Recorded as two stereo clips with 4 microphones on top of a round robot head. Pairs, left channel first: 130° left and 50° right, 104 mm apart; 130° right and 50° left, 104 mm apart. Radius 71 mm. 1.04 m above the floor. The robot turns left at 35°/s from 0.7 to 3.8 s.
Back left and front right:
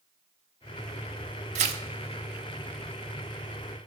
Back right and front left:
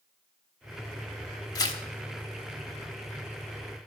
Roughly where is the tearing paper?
Right.